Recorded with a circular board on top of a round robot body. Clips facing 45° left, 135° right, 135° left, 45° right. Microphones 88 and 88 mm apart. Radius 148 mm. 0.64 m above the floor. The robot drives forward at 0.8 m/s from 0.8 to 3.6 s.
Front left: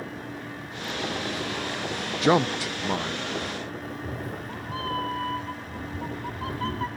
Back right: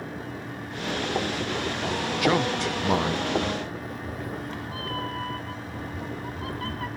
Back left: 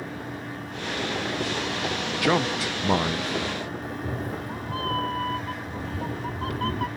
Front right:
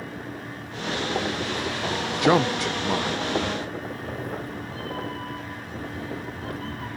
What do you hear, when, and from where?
2.2 s a man speaking: 5° left, 0.6 m; by 3.3 s 175° left, 0.8 m
3.8 s a cat meowing: 105° left, 1.1 m